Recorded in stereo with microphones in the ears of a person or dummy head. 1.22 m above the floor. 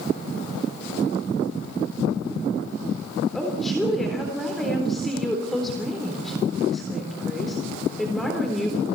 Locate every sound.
3.3 s a woman speaking: 5° right (ahead or behind), 3.5 m